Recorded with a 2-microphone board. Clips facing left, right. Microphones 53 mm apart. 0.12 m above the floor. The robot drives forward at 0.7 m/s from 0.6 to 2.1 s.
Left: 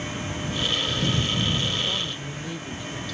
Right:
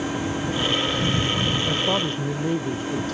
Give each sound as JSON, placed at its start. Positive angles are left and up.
{"t": 0.0, "sound": "an engine running", "side_deg": -45}
{"t": 1.7, "sound": "a woman speaking", "side_deg": -50}